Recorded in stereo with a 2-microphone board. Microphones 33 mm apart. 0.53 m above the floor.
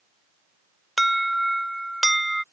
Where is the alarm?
Centre (ahead or behind).